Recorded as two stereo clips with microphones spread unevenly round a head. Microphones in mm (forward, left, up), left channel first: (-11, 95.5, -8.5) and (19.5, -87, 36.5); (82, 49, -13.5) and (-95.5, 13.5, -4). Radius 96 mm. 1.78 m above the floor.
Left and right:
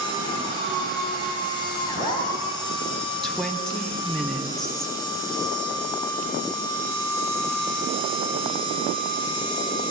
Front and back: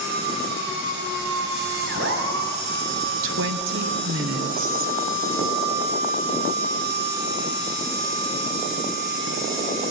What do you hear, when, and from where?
0.0 s a machine running: 175° left, 4 m
3.2 s a woman speaking: 170° right, 1.2 m